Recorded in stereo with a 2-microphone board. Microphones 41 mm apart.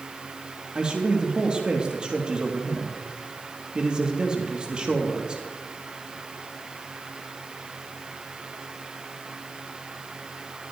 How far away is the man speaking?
About 4 m.